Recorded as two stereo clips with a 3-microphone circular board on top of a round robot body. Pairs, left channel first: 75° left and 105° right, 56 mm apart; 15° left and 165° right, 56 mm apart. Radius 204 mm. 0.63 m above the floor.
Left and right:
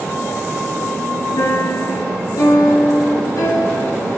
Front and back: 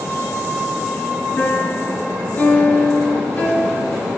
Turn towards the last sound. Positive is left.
turn(degrees=80)